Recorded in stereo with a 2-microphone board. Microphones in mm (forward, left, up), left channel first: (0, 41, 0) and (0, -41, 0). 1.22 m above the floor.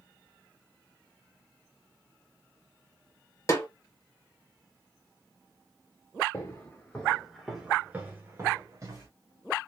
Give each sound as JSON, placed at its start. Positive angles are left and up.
{"t": 3.5, "sound": "a snare drum", "side_deg": 40, "distance_m": 0.8}
{"t": 6.3, "sound": "footsteps", "side_deg": 35, "distance_m": 1.3}